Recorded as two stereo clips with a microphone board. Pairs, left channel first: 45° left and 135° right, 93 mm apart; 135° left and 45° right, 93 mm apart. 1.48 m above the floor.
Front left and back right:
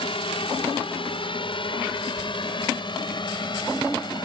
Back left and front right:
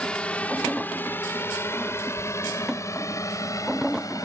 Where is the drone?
55° left; by 4.2 s 80° left.